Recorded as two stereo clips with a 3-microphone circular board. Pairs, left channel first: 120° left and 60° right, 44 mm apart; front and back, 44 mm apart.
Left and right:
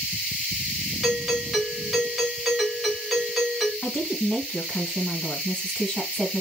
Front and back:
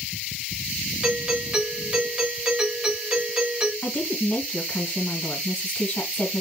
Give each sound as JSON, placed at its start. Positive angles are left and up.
{"t": 1.0, "sound": "a doorbell", "azimuth_deg": -140, "distance_m": 1.3}
{"t": 3.8, "sound": "a woman speaking", "azimuth_deg": 45, "distance_m": 2.0}